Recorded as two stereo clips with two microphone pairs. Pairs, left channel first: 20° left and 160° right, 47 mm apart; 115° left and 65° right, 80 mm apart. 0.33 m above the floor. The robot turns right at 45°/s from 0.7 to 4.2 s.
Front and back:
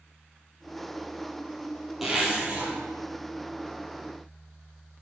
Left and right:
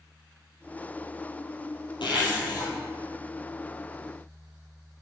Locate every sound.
2.0 s a zipper: 115° left, 2.5 m; by 2.7 s 150° left, 2.5 m